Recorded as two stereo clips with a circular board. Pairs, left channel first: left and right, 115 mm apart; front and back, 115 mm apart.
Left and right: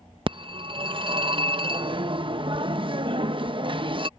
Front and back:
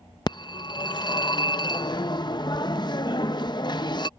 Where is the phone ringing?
50° right.